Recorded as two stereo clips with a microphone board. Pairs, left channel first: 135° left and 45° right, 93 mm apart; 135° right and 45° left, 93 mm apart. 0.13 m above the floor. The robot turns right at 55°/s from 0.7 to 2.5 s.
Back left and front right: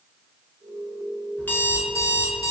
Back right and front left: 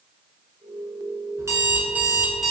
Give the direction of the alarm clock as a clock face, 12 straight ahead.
9 o'clock.